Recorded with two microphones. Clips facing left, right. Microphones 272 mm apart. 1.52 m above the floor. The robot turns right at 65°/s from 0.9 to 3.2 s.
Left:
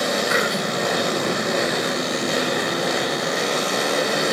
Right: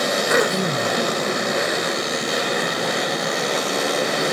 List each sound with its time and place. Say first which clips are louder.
0.3 s throat clearing: right 3 dB; 55° right (ahead or behind), 0.5 m; by 1.0 s 60° right (ahead or behind), 0.5 m